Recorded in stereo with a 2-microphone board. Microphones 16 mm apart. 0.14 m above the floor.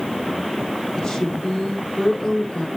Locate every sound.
1.0 s a woman speaking: 30° left (ahead or behind), 8 m